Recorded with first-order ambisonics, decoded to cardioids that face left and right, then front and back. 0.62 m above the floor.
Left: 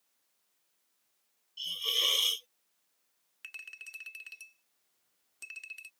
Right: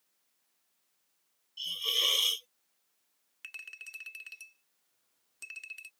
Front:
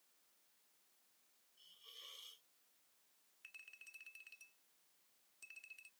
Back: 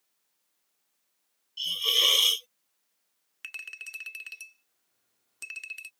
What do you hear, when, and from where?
1.6 s a hiss: straight behind
3.4 s a clink: straight behind